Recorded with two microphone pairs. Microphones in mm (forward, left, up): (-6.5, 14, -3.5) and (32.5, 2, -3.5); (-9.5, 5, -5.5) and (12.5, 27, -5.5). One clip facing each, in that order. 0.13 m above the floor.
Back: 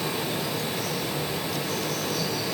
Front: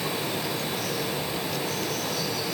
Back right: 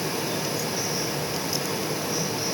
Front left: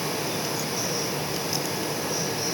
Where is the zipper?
I don't hear a zipper.